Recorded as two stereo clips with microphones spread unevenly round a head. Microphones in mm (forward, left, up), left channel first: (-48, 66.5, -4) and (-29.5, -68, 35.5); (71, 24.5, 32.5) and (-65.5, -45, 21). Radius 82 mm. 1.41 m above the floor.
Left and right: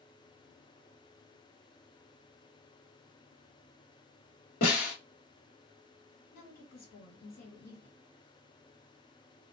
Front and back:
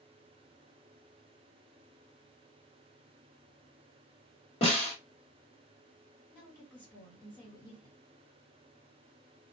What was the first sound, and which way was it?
A snare drum, 85° left.